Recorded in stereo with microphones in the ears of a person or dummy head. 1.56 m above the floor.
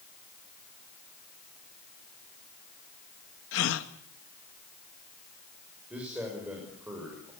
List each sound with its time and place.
3.5 s a gasp: 75° left (ahead or behind), 1.6 m
5.9 s a man speaking: 5° right (ahead or behind), 6 m